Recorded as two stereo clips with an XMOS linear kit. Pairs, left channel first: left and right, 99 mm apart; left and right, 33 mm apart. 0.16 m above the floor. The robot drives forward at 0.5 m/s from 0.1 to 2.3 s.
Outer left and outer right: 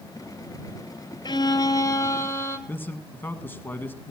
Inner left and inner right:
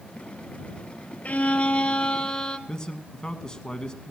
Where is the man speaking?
20° left (ahead or behind), 1.1 m.